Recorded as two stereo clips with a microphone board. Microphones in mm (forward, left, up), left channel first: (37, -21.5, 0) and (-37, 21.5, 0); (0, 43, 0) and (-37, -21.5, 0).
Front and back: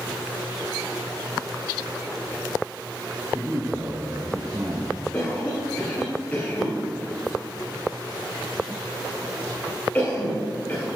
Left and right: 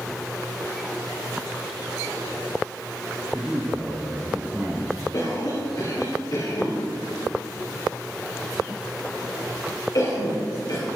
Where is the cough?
40° left, 3 m.